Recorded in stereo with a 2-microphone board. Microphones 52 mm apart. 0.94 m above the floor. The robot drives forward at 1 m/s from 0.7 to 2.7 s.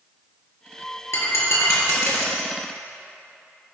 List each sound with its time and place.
1.1 s breaking glass: 60° left (ahead or behind), 3.5 m; by 2.5 s 75° left (ahead or behind), 3 m